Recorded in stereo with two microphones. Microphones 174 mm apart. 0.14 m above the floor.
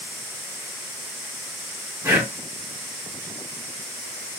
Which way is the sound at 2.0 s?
15° right (ahead or behind).